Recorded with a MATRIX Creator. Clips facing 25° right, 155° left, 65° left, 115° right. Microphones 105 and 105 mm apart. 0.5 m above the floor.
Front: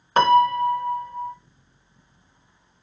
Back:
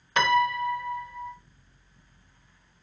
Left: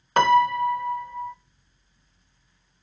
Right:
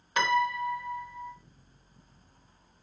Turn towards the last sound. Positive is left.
turn(degrees=30)